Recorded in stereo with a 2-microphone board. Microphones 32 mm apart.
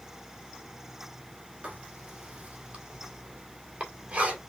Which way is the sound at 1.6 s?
35° right (ahead or behind).